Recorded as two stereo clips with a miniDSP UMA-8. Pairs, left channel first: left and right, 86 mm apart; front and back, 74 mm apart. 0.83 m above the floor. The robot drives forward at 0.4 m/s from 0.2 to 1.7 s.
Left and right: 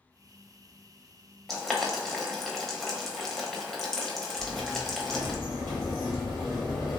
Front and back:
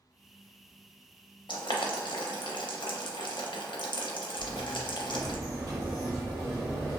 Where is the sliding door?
175° left, 1.5 m.